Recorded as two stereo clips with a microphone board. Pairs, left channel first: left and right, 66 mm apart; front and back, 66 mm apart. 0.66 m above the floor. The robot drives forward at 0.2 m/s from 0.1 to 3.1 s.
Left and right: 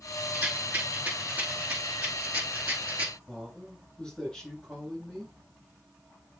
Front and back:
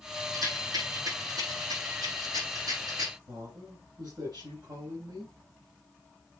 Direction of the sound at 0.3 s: 160° right.